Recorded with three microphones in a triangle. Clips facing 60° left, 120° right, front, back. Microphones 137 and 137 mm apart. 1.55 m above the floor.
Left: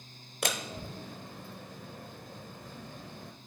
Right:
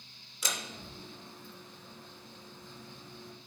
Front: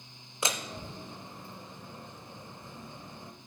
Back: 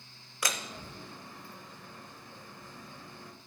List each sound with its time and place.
0.4 s a door slam: 65° left, 0.6 m